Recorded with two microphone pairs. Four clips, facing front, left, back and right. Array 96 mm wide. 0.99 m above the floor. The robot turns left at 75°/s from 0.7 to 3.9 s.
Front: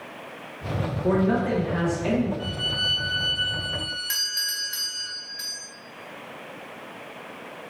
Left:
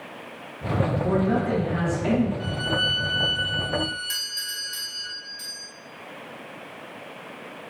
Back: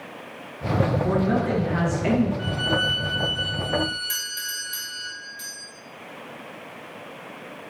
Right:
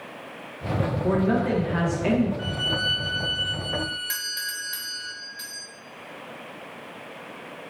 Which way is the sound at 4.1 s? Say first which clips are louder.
Right 4 dB, even; 50° right.